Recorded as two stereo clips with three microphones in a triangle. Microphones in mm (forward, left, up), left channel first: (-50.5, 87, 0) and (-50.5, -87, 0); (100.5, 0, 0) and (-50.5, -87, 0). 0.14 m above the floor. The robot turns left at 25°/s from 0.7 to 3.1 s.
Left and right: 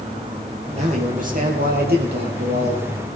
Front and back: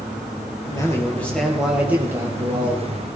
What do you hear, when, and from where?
0.7 s a man speaking: 40° right, 3.5 m; by 3.2 s 100° right, 3.5 m